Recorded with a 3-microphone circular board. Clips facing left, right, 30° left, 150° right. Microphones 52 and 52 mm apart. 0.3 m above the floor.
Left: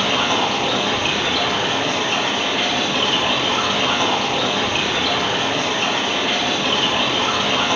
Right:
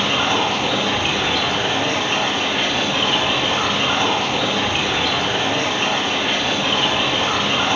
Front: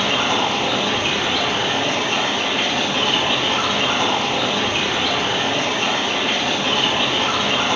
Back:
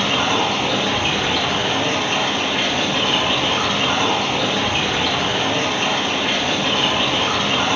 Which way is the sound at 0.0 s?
155° right.